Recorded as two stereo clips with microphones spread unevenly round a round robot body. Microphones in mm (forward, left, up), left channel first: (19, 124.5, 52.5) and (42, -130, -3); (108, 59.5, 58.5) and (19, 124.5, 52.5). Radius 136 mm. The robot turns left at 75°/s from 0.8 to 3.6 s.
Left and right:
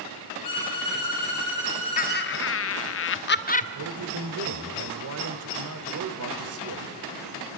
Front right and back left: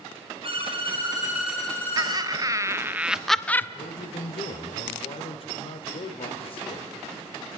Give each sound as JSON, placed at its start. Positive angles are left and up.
{"t": 0.4, "sound": "a violin", "azimuth_deg": 105, "distance_m": 7.5}
{"t": 2.0, "sound": "laughter", "azimuth_deg": 155, "distance_m": 1.0}
{"t": 3.8, "sound": "a man speaking", "azimuth_deg": -80, "distance_m": 1.5}